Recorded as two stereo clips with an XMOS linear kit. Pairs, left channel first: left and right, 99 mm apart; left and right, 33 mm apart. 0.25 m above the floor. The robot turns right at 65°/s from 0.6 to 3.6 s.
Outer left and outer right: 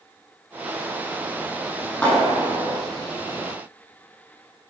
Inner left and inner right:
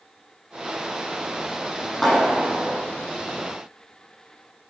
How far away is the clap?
About 8 m.